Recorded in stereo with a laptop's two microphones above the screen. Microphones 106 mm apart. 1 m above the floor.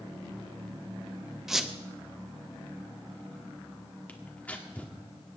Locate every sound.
1.5 s a squeak: 5° right (ahead or behind), 0.6 m
4.1 s tearing paper: 15° left (ahead or behind), 1.8 m